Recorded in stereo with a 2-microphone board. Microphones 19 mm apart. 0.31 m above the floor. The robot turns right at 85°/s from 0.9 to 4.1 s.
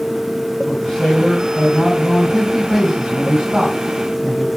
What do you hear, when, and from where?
0.7 s a man speaking: 55° left, 1.9 m; by 4.5 s 35° right, 1.9 m